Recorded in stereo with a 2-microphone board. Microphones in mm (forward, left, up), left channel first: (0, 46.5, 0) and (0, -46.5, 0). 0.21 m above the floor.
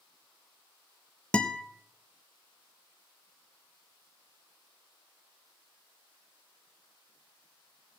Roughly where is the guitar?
Centre.